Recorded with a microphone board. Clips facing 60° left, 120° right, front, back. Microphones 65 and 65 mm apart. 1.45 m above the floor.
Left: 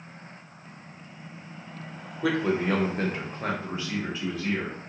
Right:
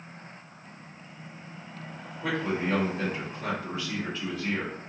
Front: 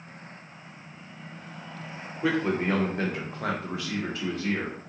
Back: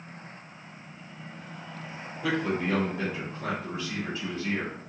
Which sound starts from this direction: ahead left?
A man speaking, at 2.2 s.